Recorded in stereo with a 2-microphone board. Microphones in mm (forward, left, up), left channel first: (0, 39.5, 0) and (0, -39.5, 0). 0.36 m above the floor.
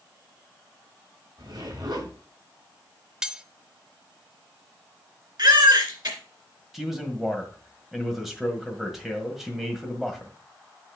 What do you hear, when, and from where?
1.4 s a zipper: 60° right (ahead or behind), 4.5 m
3.2 s cutlery clinking: 10° right (ahead or behind), 0.7 m
5.4 s a baby crying: 70° right (ahead or behind), 2.5 m
6.7 s a man speaking: 5° right (ahead or behind), 1.6 m